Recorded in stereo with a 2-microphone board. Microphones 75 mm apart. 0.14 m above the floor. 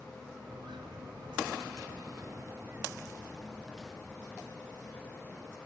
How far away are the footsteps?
About 3.5 m.